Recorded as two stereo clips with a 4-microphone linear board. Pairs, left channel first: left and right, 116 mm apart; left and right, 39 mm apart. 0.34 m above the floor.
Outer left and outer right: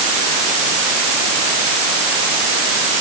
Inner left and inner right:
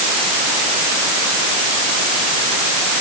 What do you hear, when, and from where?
Only background noise.